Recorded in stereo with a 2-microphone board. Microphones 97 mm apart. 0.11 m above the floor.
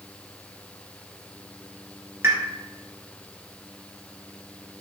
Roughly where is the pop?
Right.